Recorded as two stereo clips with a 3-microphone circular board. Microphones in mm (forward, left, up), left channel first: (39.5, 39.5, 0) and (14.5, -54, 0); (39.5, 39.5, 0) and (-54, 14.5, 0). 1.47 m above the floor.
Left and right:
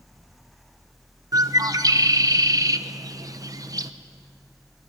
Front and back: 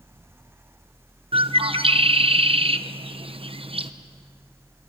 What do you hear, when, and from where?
1.3 s a bird: 155° right, 0.8 m